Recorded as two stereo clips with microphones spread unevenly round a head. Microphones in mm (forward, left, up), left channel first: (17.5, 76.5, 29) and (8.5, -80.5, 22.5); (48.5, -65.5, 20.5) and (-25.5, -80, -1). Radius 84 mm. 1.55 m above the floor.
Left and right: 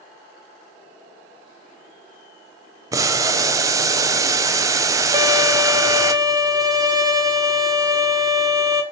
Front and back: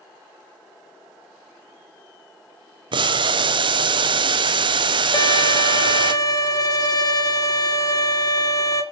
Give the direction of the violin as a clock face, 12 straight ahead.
1 o'clock.